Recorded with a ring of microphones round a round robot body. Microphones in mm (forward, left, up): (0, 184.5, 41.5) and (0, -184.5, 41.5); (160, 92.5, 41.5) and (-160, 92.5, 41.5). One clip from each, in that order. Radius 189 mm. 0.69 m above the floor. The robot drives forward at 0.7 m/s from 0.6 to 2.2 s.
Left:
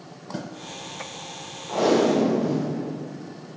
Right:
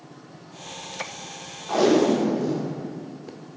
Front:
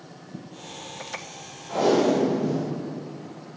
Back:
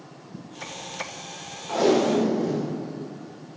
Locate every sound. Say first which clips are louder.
1.7 s tape being pulled: right 1 dB, even; 120° right, 0.9 m; by 2.7 s 135° right, 1.1 m